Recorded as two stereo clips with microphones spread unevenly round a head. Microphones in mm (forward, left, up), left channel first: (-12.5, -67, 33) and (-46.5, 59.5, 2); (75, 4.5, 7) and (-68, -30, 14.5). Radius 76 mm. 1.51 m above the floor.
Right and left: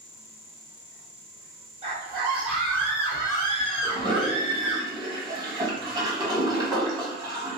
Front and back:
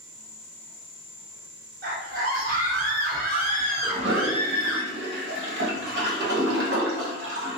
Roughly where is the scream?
Behind.